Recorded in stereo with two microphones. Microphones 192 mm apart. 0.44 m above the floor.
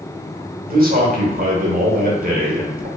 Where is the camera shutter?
No camera shutter in this recording.